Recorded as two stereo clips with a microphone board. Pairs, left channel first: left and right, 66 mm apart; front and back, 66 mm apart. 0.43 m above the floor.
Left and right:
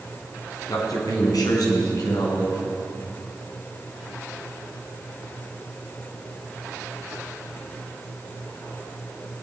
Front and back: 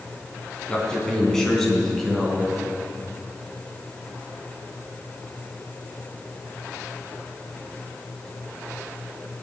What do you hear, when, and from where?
0.7 s a man speaking: 75° left, 3 m; by 2.6 s 90° left, 5 m